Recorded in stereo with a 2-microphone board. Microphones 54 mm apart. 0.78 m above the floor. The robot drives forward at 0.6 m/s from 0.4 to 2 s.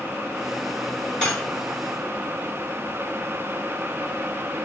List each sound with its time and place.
1.2 s cutlery clinking: 15° left (ahead or behind), 2 m